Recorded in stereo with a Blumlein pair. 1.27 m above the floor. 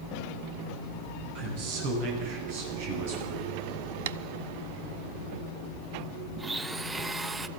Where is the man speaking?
50° right, 10 m; by 3.4 s 55° right, 8 m.